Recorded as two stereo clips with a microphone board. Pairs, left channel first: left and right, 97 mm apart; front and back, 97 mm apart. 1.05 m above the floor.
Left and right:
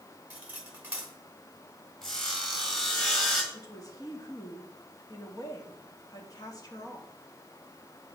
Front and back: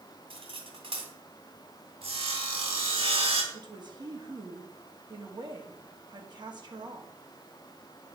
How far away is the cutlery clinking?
About 2.5 m.